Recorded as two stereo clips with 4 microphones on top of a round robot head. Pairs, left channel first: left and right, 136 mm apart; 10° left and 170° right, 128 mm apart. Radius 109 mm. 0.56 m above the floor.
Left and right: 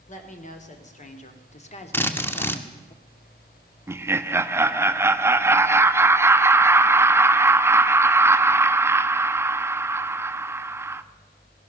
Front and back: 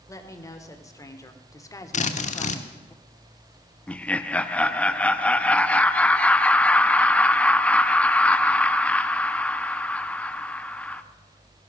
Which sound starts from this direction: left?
A woman speaking, at 0.1 s.